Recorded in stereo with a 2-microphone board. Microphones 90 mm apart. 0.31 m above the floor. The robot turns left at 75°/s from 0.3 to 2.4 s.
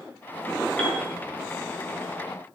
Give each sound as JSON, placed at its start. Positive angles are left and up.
{"t": 0.8, "sound": "a piano", "side_deg": 10, "distance_m": 4.5}